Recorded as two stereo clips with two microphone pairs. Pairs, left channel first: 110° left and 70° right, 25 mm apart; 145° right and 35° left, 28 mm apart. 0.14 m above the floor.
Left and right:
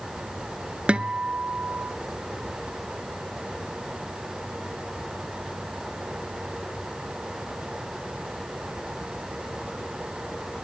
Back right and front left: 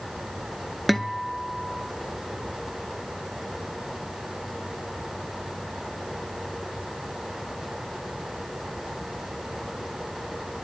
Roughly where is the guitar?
Ahead right.